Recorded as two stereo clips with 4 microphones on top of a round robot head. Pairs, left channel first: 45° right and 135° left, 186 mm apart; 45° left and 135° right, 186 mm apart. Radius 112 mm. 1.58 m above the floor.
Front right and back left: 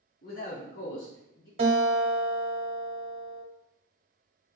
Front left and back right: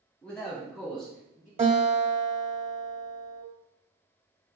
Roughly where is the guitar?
Behind.